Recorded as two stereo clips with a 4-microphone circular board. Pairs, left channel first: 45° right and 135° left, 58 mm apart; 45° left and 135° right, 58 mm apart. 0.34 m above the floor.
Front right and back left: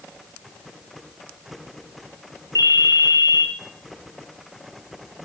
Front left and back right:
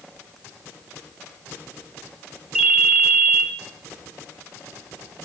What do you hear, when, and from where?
2.5 s a ringtone: 140° left, 0.9 m